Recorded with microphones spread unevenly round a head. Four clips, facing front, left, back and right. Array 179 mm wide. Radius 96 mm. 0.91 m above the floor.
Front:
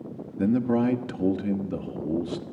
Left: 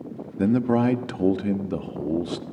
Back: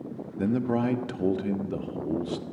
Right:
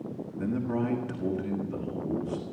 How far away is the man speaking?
About 1.3 m.